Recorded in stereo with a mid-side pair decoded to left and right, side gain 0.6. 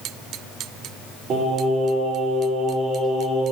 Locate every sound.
1.3 s singing: 55° right, 3.5 m